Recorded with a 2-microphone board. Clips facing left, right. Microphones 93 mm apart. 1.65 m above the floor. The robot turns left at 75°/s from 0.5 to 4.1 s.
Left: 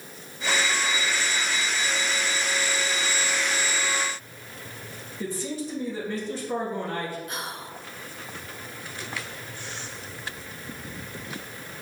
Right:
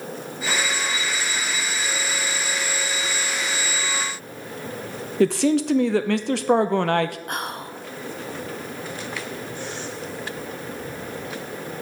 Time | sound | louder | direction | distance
5.2 | a man speaking | right 13 dB | 75° right (ahead or behind) | 0.5 m
7.3 | whispering | right 5 dB | 55° right (ahead or behind) | 0.7 m